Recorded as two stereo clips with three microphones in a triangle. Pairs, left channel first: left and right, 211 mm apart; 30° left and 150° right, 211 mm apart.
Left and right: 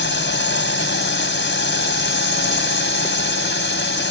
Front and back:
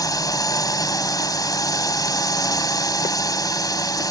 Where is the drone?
100° left.